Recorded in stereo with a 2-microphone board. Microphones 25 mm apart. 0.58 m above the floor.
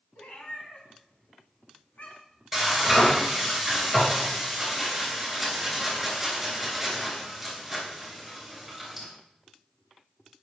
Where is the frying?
5° right (ahead or behind), 3.5 m.